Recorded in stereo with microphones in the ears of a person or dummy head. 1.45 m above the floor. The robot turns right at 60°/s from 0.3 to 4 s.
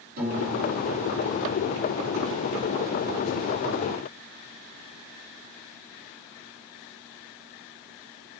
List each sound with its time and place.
0.2 s a piano: 50° right, 5.5 m; by 1.7 s 35° left, 5.5 m